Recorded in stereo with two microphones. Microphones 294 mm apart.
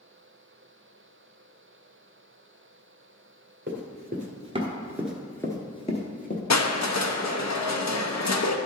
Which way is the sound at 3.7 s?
40° right (ahead or behind).